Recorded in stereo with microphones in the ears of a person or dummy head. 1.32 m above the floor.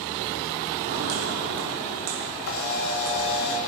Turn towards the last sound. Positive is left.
turn(degrees=80)